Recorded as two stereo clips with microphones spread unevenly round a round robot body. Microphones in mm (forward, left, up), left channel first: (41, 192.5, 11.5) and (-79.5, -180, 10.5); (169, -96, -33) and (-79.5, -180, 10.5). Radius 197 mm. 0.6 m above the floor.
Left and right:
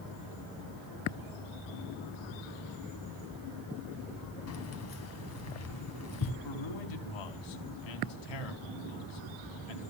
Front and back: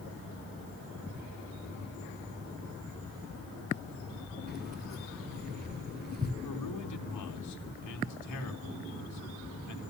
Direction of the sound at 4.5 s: 125° left.